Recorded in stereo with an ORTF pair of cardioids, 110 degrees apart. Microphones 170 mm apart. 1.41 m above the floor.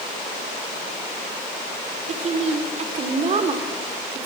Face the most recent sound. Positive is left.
turn(degrees=-40)